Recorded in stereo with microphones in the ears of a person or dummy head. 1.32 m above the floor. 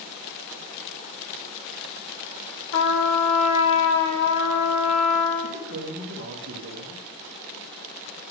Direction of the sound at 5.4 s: 55° right (ahead or behind).